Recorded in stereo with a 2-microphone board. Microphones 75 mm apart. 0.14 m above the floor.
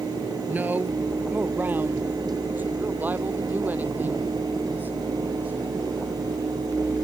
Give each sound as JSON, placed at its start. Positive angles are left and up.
{"t": 0.5, "sound": "a woman speaking", "side_deg": -25}